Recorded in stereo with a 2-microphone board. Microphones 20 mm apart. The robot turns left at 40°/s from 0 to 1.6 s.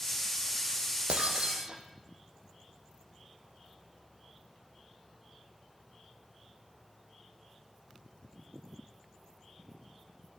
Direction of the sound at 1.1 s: 70° right (ahead or behind).